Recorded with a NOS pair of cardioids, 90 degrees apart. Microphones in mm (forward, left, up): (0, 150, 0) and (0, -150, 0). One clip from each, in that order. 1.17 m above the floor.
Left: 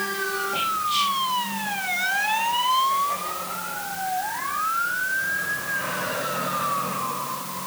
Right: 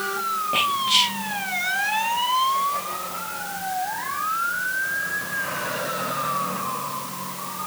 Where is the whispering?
60° right, 2.5 m.